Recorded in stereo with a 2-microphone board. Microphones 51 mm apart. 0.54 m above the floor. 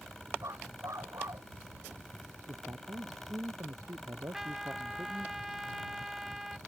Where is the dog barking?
90° right.